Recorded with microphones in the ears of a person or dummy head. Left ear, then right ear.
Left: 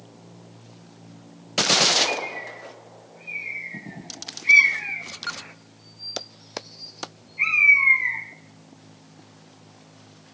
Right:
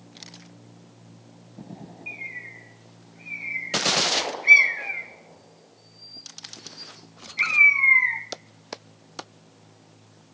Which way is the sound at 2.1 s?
60° right (ahead or behind).